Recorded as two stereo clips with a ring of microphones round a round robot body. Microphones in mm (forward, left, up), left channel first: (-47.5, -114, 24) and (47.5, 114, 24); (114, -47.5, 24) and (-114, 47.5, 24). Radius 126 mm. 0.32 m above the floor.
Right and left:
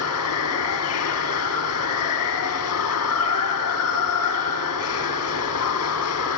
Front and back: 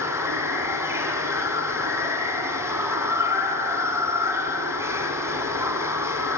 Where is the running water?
125° right, 3 m.